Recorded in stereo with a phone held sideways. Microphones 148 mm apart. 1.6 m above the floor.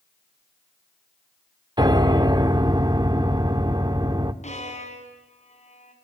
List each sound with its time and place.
1.8 s a piano: 30° right (ahead or behind), 1.3 m
4.4 s a violin: 55° left (ahead or behind), 5 m